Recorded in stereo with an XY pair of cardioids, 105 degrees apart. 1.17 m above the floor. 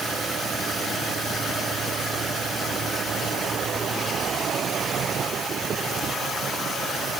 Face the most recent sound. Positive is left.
No sound to turn to.